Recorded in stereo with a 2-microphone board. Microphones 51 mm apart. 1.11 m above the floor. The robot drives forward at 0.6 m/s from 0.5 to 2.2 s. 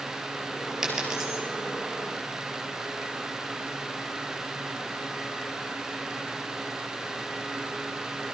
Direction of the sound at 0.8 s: 10° right (ahead or behind).